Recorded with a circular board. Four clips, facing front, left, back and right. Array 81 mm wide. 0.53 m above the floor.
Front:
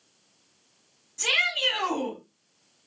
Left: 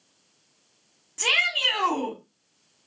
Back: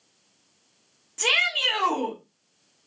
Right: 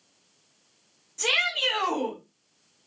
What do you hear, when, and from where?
1.2 s a shout: 135° left, 1.8 m